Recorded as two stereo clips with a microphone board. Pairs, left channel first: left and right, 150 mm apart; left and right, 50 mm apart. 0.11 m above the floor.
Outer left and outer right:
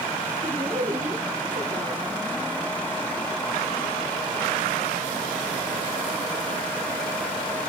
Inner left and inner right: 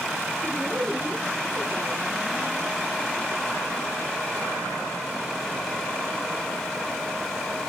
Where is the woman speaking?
55° right (ahead or behind), 3.5 m.